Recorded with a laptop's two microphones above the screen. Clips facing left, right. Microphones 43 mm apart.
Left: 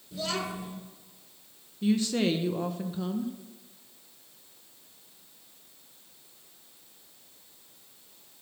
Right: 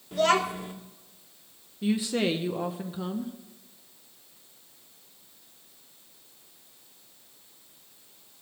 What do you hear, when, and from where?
0.1 s a child speaking: 55° right (ahead or behind), 1.7 m
1.8 s a woman speaking: 10° right (ahead or behind), 0.6 m